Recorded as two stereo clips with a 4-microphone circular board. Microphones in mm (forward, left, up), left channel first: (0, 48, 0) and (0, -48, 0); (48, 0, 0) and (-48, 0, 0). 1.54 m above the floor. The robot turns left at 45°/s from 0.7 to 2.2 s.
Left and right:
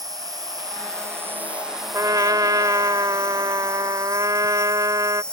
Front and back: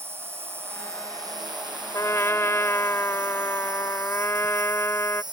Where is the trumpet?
45° right; by 5.2 s 55° right.